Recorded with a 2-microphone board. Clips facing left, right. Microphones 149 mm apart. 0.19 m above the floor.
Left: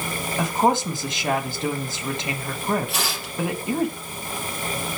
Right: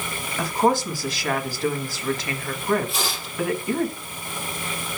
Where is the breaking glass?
I don't hear breaking glass.